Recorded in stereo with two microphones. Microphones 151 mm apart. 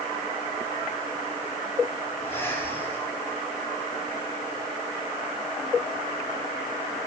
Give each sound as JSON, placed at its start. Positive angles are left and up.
{"t": 2.2, "sound": "breathing", "side_deg": 15, "distance_m": 6.5}